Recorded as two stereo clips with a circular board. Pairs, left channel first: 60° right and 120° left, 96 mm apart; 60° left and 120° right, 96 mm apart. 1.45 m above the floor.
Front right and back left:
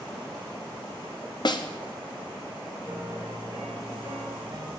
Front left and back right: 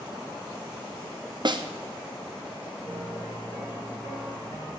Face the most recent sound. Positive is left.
turn(degrees=60)